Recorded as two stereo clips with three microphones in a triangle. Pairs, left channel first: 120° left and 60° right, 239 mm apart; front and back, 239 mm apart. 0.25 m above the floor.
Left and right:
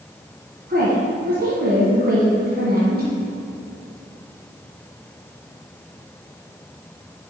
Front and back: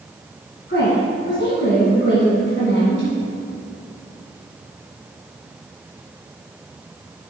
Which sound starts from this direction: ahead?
A woman speaking, at 0.7 s.